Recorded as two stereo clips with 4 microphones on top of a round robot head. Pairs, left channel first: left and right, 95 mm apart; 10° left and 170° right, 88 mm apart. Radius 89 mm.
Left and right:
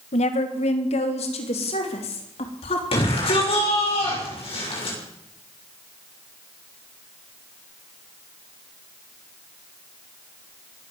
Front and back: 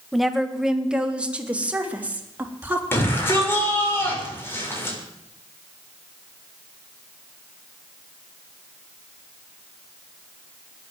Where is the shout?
70° left, 6.5 m.